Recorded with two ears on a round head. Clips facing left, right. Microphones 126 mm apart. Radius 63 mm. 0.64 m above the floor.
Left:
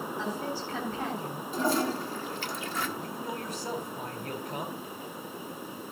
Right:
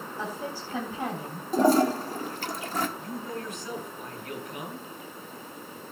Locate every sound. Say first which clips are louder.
0.2 s a woman speaking: right 1 dB; 15° right (ahead or behind), 4 m
1.5 s a toilet flushing: right 7 dB; 30° right (ahead or behind), 1.4 m
3.0 s a man speaking: right 1 dB; 30° left (ahead or behind), 3.5 m